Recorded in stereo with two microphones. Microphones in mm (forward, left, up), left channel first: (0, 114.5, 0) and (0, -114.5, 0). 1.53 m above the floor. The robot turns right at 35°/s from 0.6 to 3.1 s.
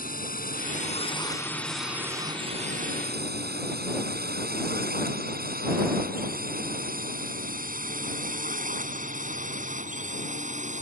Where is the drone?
40° left (ahead or behind); by 10.8 s 30° right (ahead or behind).